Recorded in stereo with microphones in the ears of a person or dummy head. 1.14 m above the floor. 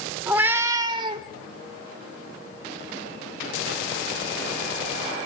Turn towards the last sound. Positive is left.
turn(degrees=-30)  # may be behind; listen again after turning